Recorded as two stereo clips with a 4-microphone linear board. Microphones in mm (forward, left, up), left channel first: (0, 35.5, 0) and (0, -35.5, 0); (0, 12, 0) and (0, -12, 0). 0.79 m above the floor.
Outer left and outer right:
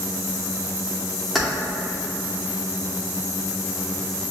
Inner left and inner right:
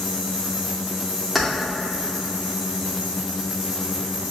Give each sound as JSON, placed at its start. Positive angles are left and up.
{"t": 1.4, "sound": "keys jangling", "side_deg": 0, "distance_m": 0.9}